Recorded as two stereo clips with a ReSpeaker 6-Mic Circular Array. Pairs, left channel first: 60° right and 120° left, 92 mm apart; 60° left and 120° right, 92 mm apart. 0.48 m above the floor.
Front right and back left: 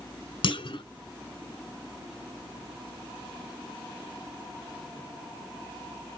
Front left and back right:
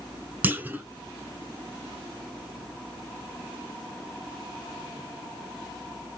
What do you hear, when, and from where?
0.4 s a clunk: 50° right, 0.7 m